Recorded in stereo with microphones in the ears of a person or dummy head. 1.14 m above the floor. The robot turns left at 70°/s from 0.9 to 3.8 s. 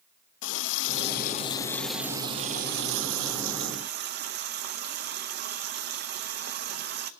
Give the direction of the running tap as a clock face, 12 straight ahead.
10 o'clock.